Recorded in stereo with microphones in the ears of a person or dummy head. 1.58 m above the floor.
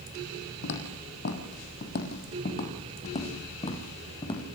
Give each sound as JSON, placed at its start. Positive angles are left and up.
{"t": 0.6, "sound": "footsteps", "side_deg": 55, "distance_m": 4.0}